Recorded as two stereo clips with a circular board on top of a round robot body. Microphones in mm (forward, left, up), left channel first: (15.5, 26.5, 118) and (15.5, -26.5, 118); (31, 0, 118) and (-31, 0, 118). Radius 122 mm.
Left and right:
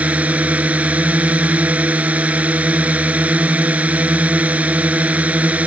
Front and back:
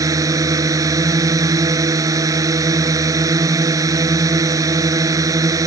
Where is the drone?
155° right.